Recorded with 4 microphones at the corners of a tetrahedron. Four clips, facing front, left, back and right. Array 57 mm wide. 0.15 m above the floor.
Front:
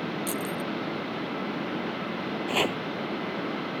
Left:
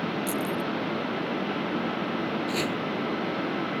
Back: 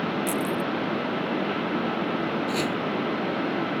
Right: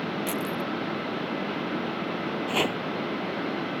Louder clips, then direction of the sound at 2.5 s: Right 2 dB, even; 40° right.